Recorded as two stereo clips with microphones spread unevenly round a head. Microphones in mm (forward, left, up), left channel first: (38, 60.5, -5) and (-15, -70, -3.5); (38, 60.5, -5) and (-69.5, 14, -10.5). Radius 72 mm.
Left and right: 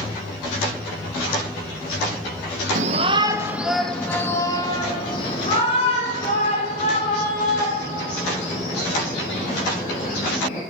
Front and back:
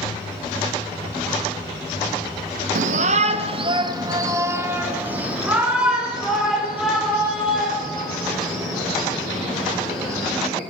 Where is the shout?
150° right, 0.7 m; by 10.6 s 110° left, 4.5 m.